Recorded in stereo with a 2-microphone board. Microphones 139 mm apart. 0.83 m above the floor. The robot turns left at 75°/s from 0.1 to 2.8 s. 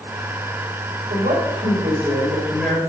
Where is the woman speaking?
70° right, 3 m; by 2.8 s 165° left, 3 m.